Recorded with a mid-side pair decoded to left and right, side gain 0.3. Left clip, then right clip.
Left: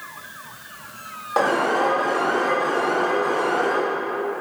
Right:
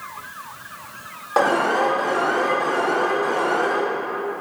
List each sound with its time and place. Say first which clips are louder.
1.4 s an alarm: right 1 dB; 25° right, 5 m